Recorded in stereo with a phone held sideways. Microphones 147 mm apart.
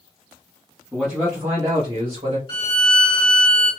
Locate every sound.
0.9 s a man speaking: centre (ahead or behind), 2 m; by 2.4 s 60° right (ahead or behind), 1.5 m
2.5 s a violin: 35° left (ahead or behind), 1.9 m